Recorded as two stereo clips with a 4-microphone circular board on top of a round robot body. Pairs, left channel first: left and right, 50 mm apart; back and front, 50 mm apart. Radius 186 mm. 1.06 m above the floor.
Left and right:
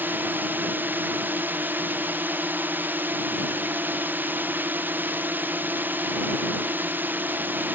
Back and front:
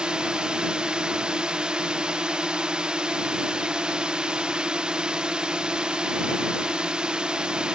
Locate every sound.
0.0 s a drone: 65° right